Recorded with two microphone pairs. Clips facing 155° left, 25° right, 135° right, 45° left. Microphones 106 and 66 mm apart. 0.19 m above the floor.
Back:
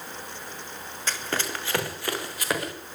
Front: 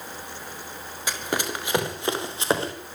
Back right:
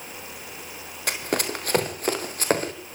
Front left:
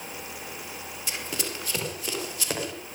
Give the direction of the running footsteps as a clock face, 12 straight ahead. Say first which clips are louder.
Front 2 dB, back right 8 dB; 3 o'clock.